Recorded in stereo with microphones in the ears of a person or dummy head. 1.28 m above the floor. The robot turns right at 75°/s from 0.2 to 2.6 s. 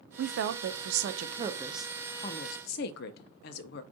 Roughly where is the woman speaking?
Behind right.